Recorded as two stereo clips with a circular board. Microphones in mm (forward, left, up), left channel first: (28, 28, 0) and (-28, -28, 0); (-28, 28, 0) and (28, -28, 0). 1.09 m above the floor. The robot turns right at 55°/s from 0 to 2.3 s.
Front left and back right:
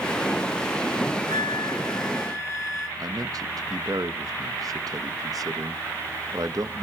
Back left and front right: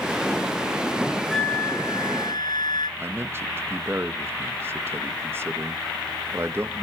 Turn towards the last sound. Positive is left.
turn(degrees=-100)